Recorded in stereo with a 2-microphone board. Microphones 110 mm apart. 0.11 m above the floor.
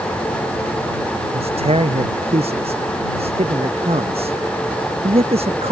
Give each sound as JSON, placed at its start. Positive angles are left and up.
{"t": 1.3, "sound": "a man speaking", "side_deg": -65}